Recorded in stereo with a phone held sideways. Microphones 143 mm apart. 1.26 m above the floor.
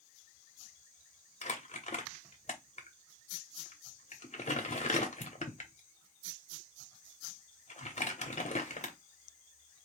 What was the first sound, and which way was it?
Crumpling, 55° left (ahead or behind).